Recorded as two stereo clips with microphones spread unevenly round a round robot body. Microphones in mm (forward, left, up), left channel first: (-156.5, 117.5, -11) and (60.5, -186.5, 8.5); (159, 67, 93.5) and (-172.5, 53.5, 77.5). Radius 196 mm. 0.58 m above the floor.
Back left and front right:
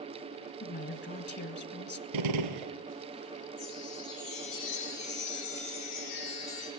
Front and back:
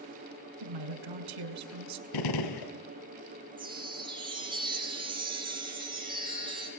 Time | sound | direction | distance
0.6 | a woman speaking | 170° right | 3.5 m
2.1 | a gunshot | 25° right | 1.9 m
3.6 | a chime | 105° left | 7.5 m